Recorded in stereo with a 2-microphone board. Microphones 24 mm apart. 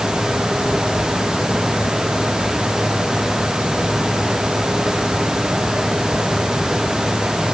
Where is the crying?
I don't hear crying.